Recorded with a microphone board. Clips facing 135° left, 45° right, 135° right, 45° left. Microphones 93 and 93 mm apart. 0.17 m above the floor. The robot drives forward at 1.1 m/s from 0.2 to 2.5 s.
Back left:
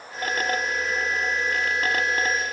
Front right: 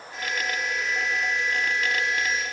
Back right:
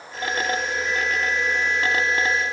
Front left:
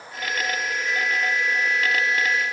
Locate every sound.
Only background noise.